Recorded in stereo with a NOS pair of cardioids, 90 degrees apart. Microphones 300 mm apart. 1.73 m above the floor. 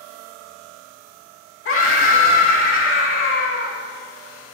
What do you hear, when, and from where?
1.6 s a scream: 45° left, 2.5 m